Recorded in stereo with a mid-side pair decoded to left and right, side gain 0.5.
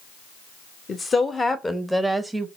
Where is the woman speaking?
35° left, 1.1 m; by 2.5 s 15° right, 0.8 m.